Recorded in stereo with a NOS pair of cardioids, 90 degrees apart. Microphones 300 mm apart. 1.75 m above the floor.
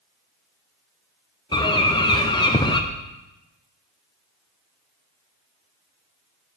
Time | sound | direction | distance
1.5 | a bird | 15° left | 1.0 m